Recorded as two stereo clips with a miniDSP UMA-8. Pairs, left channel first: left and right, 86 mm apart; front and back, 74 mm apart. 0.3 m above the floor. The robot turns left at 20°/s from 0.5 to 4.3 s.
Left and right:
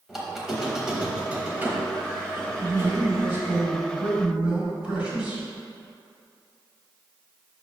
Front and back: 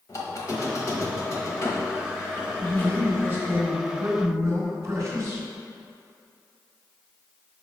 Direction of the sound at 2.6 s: 125° right.